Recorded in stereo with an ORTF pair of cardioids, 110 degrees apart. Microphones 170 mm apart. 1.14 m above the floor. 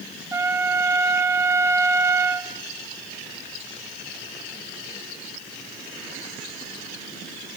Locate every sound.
0.3 s a trumpet: 15° right, 1.4 m